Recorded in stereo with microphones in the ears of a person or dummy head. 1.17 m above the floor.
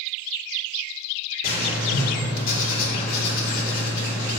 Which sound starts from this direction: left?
Writing, at 1.4 s.